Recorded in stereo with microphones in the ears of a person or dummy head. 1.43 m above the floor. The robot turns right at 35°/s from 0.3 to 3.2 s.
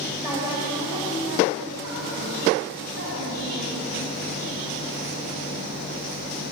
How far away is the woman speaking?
About 5 m.